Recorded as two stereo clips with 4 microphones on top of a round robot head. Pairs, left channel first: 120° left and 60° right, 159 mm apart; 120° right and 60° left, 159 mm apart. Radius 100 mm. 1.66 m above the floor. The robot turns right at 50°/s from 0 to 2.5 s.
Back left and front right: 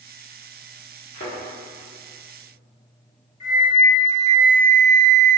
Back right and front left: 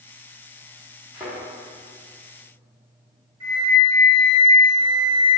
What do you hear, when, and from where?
1.1 s a thud: 130° left, 1.3 m; by 1.3 s 140° left, 1.3 m
3.4 s a flute: 115° left, 1.3 m